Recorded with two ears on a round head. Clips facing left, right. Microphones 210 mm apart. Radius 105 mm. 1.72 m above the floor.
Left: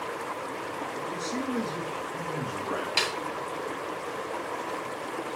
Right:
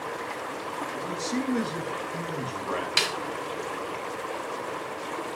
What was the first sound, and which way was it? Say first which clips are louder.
A man speaking: right 4 dB; 35° right (ahead or behind).